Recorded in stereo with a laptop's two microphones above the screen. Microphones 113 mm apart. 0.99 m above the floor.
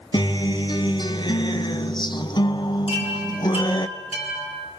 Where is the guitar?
40° left (ahead or behind), 1.0 m.